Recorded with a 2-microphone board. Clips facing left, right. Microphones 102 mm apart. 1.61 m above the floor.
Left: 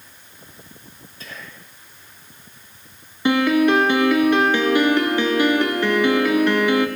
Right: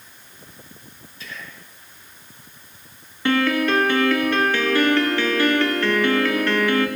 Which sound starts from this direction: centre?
A piano, at 3.2 s.